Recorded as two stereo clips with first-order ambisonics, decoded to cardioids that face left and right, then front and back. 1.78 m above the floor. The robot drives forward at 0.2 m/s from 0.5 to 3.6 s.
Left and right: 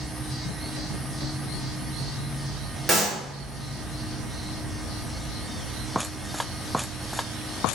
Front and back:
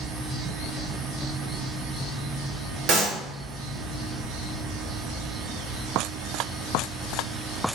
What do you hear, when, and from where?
2.9 s a clap: 165° right, 1.0 m